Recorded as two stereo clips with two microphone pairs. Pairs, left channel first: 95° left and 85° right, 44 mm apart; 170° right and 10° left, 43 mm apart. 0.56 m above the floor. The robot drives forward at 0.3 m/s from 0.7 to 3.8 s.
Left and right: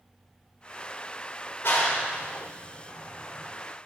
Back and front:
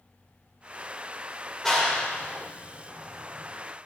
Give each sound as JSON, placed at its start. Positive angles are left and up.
{"t": 1.6, "sound": "a clap", "azimuth_deg": 115, "distance_m": 1.5}